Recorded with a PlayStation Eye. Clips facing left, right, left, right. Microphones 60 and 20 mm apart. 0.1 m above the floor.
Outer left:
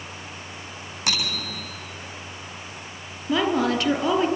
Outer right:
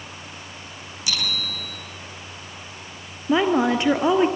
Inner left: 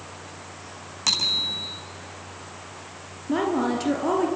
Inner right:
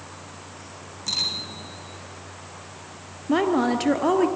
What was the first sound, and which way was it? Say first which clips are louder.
A bicycle bell: even, inner left 4 dB; 60° left (ahead or behind).